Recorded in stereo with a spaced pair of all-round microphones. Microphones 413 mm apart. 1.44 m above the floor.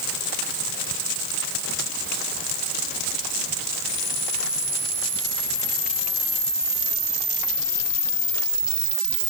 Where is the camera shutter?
70° left (ahead or behind), 5.5 m.